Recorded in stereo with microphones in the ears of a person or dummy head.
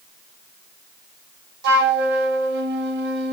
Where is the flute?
60° right (ahead or behind), 3 m.